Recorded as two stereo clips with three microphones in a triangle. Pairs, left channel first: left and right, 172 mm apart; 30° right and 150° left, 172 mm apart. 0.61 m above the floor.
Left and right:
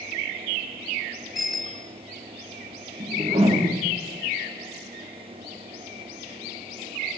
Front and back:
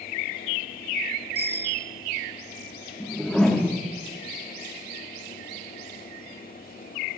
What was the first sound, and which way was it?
A bicycle bell, straight behind.